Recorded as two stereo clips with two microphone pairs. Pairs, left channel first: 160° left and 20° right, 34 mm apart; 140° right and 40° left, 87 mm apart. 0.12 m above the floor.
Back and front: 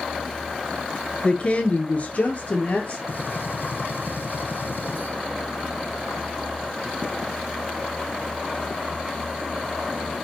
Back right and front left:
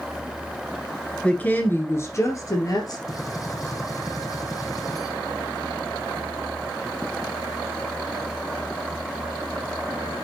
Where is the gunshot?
170° left, 2.5 m.